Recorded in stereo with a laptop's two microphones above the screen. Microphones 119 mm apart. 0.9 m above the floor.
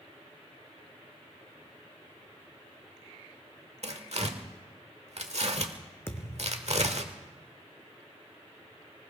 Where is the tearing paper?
65° right (ahead or behind), 1.2 m.